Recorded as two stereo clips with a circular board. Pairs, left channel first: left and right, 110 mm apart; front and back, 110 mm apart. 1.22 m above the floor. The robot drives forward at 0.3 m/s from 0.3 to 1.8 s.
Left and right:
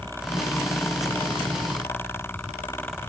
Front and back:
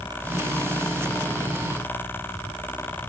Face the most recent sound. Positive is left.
No sound to turn to.